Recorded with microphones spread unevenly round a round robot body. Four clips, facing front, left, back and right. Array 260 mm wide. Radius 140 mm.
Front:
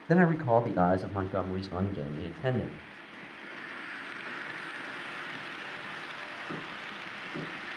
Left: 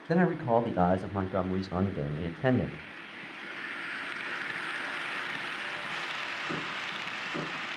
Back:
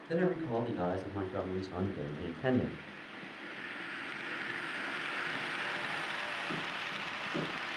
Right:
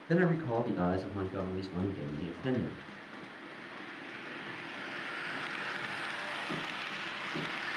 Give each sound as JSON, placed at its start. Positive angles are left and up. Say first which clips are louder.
{"t": 0.1, "sound": "a man speaking", "louder": "left 4 dB, front 8 dB", "azimuth_deg": 30, "distance_m": 2.0}